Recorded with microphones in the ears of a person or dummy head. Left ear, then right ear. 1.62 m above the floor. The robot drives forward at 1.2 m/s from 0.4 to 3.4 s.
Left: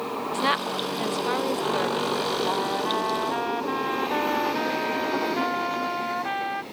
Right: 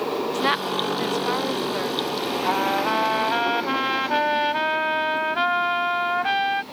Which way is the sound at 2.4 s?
70° right (ahead or behind).